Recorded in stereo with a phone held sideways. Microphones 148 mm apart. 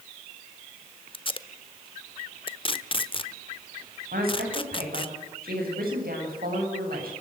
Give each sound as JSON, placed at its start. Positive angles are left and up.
{"t": 1.1, "sound": "tape being pulled", "side_deg": 35, "distance_m": 1.0}
{"t": 4.1, "sound": "a woman speaking", "side_deg": -85, "distance_m": 9.0}